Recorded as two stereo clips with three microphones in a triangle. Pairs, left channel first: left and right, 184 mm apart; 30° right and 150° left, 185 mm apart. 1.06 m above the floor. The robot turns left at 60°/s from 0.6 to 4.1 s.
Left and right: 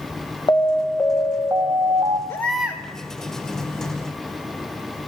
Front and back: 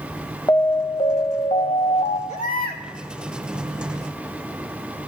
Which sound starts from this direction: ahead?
A baby crying, at 2.3 s.